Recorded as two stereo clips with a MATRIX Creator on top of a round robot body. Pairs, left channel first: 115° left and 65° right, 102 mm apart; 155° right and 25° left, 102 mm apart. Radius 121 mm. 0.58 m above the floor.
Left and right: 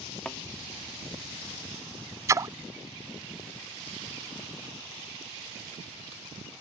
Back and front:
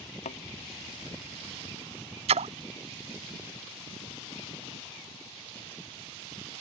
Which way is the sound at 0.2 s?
165° right.